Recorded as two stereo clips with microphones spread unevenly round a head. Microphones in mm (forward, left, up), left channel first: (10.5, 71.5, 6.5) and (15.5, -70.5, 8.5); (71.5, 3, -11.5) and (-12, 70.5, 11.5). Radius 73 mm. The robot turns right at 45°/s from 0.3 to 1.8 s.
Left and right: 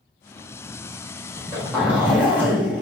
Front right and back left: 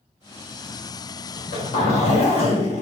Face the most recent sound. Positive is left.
turn(degrees=-10)